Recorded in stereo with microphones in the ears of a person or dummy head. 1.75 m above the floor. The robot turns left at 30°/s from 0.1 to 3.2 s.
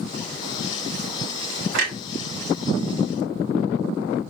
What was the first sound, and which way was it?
A clunk, 70° right (ahead or behind).